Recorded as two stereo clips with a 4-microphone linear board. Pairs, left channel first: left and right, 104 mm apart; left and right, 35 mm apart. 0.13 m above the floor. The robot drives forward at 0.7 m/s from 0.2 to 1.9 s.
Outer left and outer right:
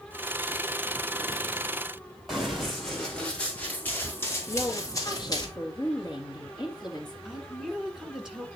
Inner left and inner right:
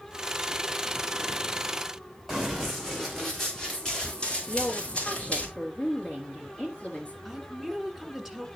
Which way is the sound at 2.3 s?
5° right (ahead or behind).